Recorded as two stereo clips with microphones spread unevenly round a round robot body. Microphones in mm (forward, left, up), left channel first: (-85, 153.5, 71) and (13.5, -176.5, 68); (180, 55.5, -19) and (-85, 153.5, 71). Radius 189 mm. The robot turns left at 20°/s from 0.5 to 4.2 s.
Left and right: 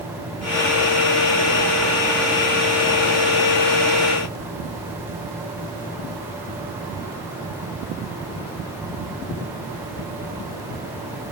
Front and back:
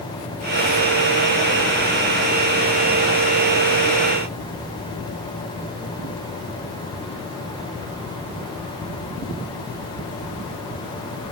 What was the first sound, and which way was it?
Only background noise.